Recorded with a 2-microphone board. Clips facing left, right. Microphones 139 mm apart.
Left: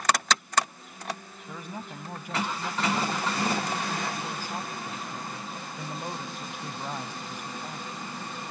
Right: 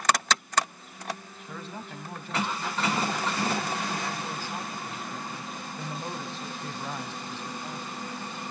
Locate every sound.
1.5 s a man speaking: 15° left (ahead or behind), 2 m